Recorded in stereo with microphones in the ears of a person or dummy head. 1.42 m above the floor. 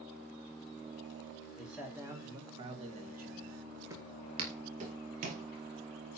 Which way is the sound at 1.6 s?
Centre (ahead or behind).